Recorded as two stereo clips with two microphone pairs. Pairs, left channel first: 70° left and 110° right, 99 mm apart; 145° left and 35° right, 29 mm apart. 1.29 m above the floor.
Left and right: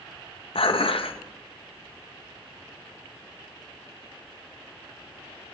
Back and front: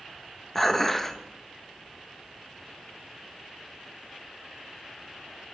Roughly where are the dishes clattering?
Left.